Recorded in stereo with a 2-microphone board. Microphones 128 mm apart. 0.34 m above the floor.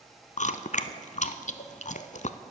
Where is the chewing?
70° left (ahead or behind), 0.5 m.